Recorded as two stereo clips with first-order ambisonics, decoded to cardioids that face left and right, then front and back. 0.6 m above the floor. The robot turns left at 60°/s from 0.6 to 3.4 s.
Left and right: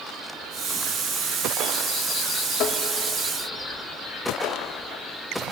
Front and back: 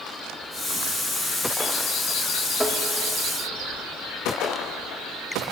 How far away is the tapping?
About 0.9 m.